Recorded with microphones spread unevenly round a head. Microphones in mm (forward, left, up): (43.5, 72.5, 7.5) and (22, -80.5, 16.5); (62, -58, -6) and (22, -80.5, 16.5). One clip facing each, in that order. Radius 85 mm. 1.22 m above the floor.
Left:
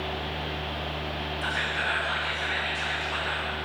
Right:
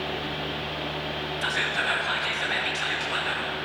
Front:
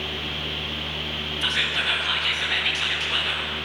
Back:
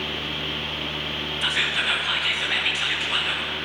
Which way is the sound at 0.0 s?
90° right.